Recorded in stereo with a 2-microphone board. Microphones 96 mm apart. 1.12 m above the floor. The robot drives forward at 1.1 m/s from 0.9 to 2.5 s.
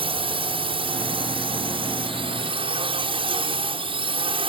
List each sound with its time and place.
0.0 s a drone: 70° right (ahead or behind)